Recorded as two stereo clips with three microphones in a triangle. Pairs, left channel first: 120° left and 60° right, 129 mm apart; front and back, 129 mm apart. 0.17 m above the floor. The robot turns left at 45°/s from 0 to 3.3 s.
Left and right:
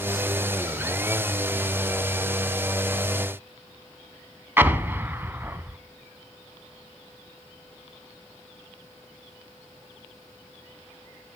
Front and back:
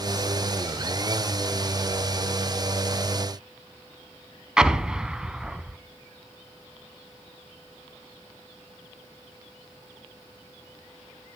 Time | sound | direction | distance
4.6 | an explosion | 105° right | 0.6 m